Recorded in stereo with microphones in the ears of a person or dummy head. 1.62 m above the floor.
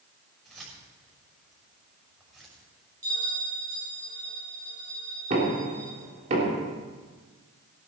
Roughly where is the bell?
Centre.